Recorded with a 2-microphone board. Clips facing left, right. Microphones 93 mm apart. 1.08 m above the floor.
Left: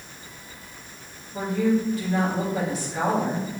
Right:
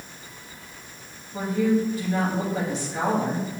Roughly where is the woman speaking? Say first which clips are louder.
Even; right.